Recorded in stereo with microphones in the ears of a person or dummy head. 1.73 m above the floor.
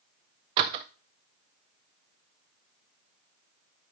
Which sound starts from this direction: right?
A door slam, at 0.6 s.